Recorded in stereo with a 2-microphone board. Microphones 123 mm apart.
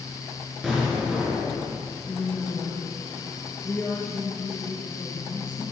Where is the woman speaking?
15° left (ahead or behind), 3.5 m.